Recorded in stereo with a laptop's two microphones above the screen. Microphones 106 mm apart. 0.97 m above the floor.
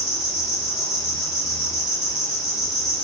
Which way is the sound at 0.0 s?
35° left (ahead or behind).